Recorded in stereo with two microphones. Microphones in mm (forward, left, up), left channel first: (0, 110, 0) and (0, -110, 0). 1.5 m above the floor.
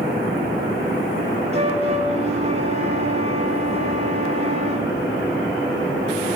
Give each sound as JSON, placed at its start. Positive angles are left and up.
{"t": 1.5, "sound": "a flute", "side_deg": -30, "distance_m": 4.5}